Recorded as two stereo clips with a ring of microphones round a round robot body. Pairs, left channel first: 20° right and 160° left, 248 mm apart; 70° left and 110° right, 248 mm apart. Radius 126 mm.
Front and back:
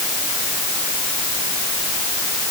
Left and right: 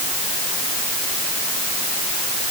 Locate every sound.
Only background noise.